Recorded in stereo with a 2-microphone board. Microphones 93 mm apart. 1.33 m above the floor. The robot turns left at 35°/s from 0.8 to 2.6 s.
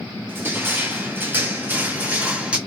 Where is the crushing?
25° right (ahead or behind), 0.7 m; by 2.6 s 10° right (ahead or behind), 0.7 m.